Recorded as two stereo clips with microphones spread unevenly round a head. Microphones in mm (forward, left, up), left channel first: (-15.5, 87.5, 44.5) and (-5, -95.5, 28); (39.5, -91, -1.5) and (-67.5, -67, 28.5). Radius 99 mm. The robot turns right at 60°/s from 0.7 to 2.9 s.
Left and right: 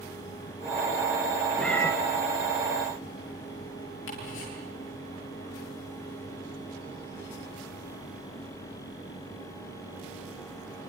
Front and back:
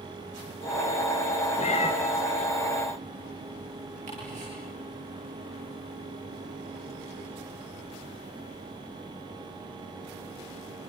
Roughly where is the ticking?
Behind left.